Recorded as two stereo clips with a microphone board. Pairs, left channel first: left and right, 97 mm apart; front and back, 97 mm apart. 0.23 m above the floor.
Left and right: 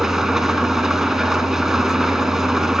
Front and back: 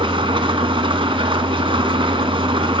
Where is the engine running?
175° right, 0.8 m.